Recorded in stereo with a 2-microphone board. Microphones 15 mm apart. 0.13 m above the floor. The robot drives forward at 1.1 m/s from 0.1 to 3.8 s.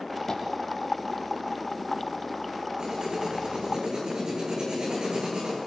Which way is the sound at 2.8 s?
70° right (ahead or behind).